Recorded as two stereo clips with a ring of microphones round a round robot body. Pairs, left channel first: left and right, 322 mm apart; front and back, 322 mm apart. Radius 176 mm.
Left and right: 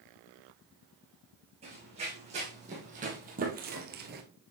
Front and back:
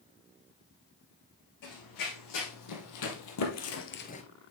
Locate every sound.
1.6 s running footsteps: 15° right, 4 m; by 4.2 s 60° right, 1.1 m